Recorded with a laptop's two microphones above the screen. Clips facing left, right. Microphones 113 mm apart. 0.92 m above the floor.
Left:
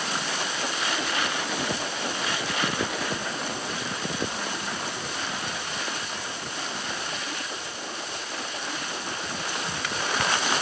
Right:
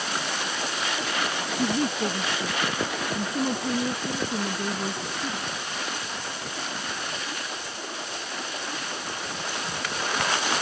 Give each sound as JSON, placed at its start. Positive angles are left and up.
{"t": 1.6, "sound": "a woman speaking", "side_deg": -65}